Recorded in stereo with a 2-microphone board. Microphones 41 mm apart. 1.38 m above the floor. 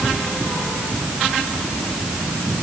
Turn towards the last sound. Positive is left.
No sound to turn to.